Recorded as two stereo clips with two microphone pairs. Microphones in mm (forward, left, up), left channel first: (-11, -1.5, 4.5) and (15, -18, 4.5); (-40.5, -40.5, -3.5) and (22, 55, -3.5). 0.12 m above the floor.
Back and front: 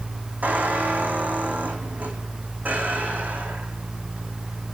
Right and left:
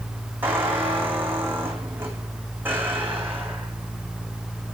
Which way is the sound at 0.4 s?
15° right.